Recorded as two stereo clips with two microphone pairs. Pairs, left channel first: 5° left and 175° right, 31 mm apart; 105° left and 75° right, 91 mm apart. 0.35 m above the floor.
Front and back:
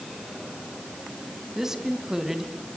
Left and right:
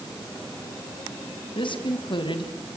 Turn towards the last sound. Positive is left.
turn(degrees=110)